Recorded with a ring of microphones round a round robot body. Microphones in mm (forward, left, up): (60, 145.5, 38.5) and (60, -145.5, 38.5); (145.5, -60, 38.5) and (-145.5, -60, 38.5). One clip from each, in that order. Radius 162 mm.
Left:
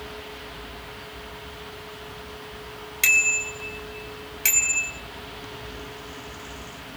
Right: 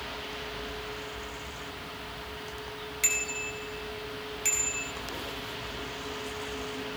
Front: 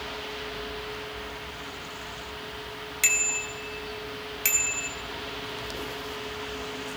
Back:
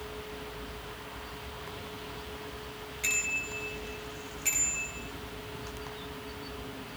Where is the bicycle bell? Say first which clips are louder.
Left 11 dB, front 5 dB; 40° left, 4 m.